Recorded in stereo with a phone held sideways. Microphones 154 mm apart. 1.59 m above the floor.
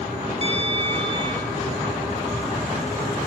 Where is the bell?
40° right (ahead or behind), 3.5 m.